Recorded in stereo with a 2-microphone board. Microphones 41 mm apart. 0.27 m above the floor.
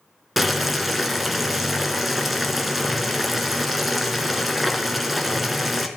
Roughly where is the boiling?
Centre.